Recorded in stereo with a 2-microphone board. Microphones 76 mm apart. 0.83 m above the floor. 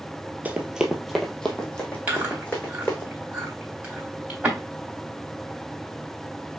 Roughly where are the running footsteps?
Centre.